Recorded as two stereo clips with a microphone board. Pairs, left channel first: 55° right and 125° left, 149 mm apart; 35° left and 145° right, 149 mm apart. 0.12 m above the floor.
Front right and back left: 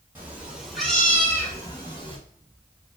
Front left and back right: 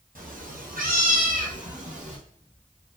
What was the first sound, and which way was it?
A cat meowing, 160° right.